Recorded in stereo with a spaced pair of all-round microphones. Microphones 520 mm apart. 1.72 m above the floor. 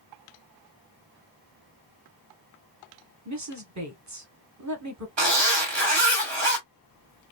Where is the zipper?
55° right (ahead or behind), 1.2 m.